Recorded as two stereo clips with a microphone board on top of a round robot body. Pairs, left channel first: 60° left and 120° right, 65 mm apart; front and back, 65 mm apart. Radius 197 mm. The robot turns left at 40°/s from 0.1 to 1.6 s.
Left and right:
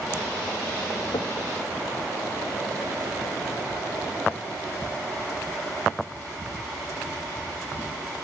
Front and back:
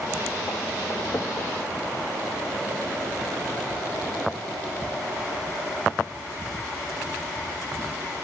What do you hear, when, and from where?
1.1 s knocking: 65° left, 1.3 m; by 1.4 s 55° left, 1.3 m